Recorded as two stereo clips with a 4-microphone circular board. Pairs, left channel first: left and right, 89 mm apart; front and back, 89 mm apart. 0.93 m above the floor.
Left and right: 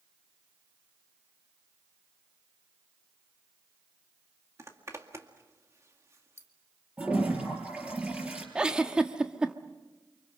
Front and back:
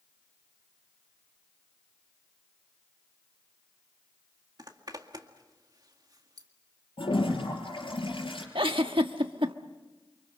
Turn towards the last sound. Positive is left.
turn(degrees=-170)